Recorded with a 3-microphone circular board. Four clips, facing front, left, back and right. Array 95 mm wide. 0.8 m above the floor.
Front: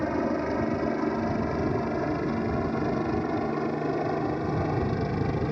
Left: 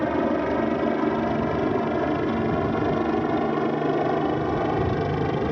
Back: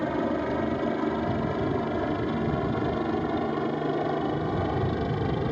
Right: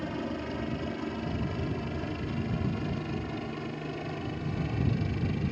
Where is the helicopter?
90° left; by 5.5 s 95° left.